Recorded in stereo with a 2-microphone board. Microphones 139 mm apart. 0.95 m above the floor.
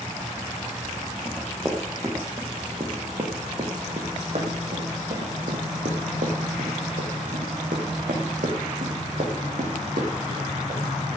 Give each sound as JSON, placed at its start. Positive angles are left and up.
{"t": 1.2, "sound": "running footsteps", "side_deg": -20, "distance_m": 4.0}